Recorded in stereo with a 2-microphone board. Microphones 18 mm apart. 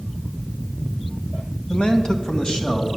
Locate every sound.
1.7 s a man speaking: 70° left (ahead or behind), 1.9 m; by 3.0 s 65° left (ahead or behind), 3 m